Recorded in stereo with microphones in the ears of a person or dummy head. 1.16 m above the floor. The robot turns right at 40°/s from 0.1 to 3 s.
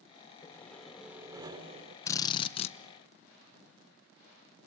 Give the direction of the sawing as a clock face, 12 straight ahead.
7 o'clock.